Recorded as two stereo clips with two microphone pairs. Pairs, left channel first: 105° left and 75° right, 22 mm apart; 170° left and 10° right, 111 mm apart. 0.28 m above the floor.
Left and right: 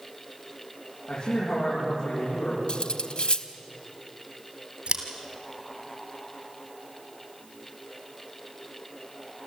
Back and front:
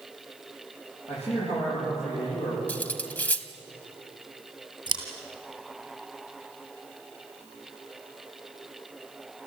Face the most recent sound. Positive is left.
turn(degrees=-60)